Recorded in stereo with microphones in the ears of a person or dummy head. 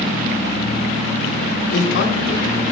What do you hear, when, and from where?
1.7 s a man speaking: 75° left (ahead or behind), 1.6 m